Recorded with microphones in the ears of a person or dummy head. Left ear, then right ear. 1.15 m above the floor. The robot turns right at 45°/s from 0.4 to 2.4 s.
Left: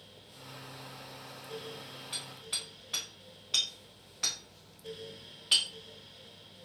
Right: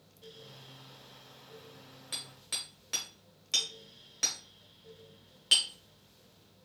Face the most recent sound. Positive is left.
turn(degrees=-35)  # may be behind; listen again after turning